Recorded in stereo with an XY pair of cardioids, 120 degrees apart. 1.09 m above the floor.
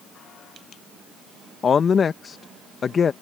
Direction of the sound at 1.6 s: 35° left.